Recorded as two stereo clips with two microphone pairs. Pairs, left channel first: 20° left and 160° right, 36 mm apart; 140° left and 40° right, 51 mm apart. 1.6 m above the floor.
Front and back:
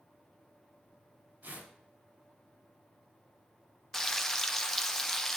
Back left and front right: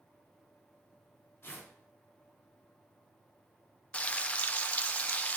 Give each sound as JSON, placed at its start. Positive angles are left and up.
{"t": 1.4, "sound": "tearing paper", "azimuth_deg": 180, "distance_m": 4.0}
{"t": 3.9, "sound": "frying", "azimuth_deg": 90, "distance_m": 0.5}